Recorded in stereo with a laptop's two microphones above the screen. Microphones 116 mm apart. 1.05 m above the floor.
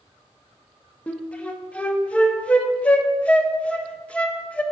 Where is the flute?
10° left (ahead or behind), 0.8 m.